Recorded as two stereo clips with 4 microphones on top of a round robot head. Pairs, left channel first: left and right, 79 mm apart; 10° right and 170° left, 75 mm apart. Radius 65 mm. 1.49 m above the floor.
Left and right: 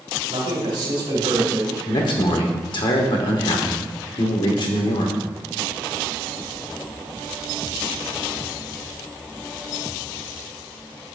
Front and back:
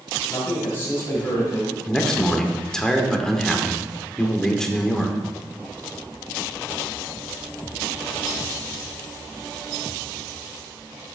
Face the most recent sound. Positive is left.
turn(degrees=75)